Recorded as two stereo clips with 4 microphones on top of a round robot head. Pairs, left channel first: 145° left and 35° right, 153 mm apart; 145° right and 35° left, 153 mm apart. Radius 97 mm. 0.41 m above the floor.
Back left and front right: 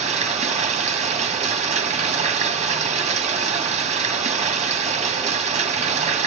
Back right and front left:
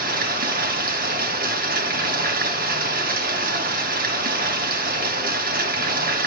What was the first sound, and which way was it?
Running water, 10° left.